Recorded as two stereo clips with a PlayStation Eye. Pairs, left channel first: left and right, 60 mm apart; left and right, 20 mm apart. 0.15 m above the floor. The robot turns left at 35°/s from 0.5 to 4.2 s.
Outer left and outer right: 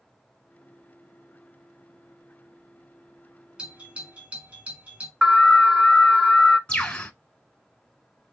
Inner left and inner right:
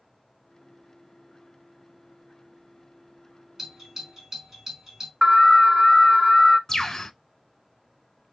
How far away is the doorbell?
About 1.6 m.